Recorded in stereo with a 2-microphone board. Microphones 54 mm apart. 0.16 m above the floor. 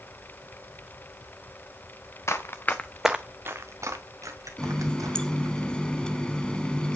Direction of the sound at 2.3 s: 55° left (ahead or behind).